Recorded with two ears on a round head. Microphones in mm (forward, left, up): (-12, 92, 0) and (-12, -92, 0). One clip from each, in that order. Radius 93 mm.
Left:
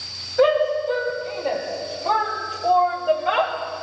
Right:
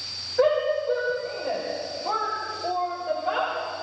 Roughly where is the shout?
Centre.